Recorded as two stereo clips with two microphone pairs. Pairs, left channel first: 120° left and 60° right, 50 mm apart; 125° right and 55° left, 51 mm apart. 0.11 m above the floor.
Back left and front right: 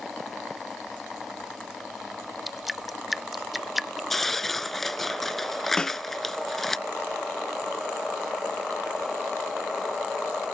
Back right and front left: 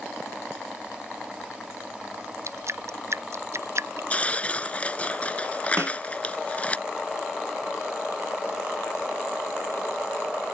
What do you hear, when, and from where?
2.5 s dripping: 25° left
4.1 s tearing paper: 160° right
5.8 s a snare drum: 50° left